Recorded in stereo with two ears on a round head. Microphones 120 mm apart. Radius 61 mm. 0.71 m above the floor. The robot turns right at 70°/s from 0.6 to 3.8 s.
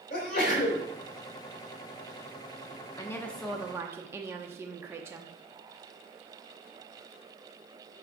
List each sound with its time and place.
0.1 s a sneeze: 70° left (ahead or behind), 3.5 m; by 0.8 s 60° left (ahead or behind), 3.5 m
3.0 s a woman speaking: 150° left, 0.8 m; by 5.3 s 155° right, 0.8 m